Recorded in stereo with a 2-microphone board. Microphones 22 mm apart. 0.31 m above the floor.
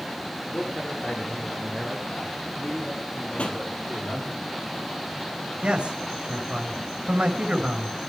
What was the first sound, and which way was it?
A man speaking, 55° left (ahead or behind).